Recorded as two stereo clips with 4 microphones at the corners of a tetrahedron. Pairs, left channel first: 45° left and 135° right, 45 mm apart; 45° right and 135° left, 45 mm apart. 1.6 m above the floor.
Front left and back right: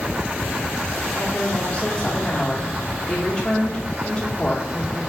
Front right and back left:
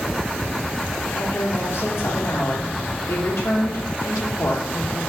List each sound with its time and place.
1.1 s a woman speaking: 25° right, 1.9 m